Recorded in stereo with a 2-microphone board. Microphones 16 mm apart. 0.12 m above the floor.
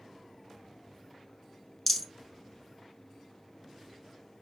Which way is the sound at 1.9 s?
10° left (ahead or behind).